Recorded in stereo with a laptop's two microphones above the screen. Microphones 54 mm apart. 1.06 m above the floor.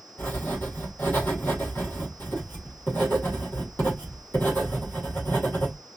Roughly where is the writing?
Left.